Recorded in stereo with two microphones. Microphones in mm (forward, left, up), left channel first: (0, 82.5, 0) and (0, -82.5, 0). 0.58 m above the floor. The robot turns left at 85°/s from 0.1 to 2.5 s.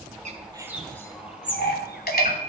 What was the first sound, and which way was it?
A bird, 50° right (ahead or behind).